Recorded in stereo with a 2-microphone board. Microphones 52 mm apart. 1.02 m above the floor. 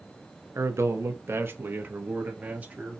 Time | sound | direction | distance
0.6 | a man speaking | 70° right (ahead or behind) | 0.9 m